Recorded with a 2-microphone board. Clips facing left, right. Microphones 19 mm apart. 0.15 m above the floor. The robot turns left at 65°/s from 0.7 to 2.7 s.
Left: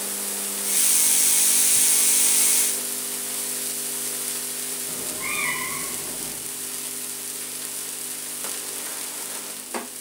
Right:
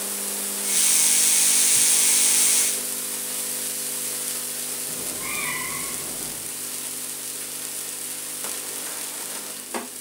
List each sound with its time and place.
4.9 s a cat meowing: 10° left (ahead or behind), 4.5 m